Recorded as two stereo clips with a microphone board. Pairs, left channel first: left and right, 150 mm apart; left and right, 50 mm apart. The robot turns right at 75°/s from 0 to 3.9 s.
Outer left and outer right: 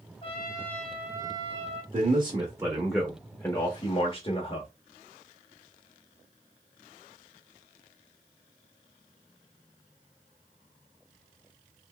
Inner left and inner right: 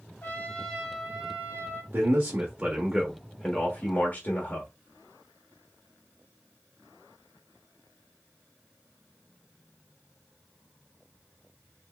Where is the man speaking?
80° right, 1.1 m; by 4.7 s 70° left, 1.1 m.